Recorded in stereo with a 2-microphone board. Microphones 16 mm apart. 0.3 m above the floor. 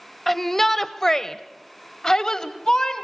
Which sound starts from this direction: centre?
A shout, at 0.3 s.